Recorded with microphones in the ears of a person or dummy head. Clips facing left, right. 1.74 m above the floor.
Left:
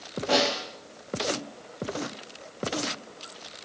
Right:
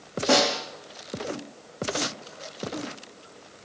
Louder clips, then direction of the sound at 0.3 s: Right 3 dB; 55° right (ahead or behind).